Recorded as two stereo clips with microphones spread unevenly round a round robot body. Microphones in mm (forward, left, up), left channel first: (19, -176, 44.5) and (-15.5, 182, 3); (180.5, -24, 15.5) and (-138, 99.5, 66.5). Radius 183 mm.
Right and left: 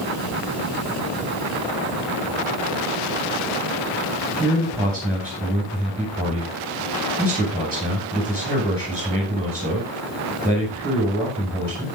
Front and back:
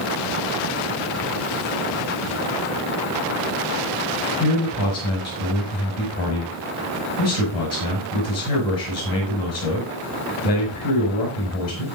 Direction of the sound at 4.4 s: 5° right.